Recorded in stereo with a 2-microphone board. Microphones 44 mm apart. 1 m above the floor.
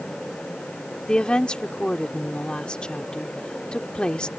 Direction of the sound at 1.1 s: 20° left (ahead or behind).